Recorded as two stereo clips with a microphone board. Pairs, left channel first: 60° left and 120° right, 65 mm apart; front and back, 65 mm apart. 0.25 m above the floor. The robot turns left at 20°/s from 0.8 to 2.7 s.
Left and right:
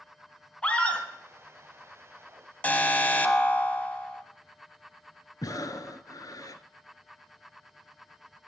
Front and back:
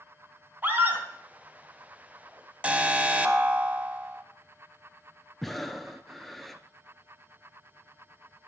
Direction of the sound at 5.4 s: 90° left.